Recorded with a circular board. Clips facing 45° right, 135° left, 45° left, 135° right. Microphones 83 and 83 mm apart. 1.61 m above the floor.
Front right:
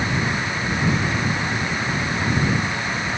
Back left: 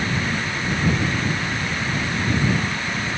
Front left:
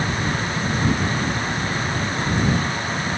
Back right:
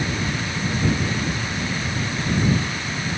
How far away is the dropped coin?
No dropped coin in this recording.